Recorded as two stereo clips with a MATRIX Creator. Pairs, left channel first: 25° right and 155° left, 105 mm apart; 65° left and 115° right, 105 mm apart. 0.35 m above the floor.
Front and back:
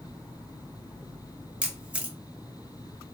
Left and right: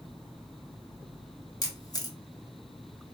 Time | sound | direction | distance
1.6 | a camera shutter | 85° left | 0.7 m